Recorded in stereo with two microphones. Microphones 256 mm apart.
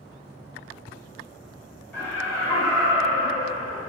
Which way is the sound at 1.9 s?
10° left (ahead or behind).